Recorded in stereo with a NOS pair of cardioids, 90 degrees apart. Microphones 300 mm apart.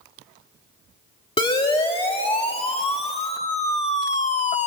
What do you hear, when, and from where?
1.4 s a siren: 20° left, 3.5 m; by 4.7 s 25° left, 1.6 m